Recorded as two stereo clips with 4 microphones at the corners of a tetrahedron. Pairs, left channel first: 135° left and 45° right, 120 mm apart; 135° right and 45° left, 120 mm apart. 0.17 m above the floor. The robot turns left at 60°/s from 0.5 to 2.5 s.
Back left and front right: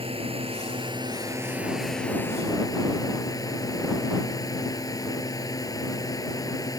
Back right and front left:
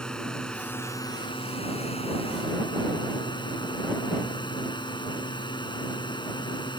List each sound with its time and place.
0.0 s a drone: 55° right; by 6.8 s 175° right